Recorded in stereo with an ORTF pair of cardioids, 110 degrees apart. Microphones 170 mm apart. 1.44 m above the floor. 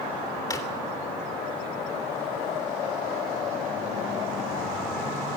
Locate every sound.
0.5 s a drawer: 20° left, 3 m